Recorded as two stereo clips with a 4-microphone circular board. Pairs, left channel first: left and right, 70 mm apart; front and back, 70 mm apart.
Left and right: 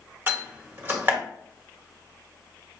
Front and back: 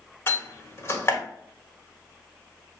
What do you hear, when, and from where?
0.3 s a door slam: 35° right, 1.3 m